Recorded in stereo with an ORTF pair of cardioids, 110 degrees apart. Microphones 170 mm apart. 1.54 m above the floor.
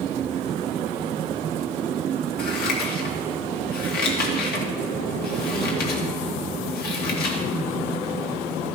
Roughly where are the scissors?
Ahead left.